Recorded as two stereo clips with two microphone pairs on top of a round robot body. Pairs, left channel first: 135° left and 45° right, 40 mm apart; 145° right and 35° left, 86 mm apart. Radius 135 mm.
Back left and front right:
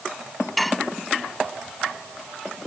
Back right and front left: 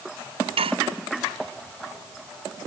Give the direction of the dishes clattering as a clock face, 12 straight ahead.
10 o'clock.